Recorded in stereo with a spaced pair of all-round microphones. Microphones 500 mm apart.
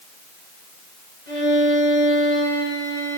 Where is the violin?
75° right (ahead or behind), 5.5 m.